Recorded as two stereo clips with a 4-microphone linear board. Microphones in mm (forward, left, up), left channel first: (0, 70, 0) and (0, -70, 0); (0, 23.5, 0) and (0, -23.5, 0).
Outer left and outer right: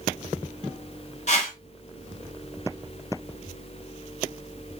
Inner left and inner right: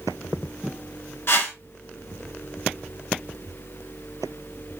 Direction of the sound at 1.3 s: 55° left (ahead or behind).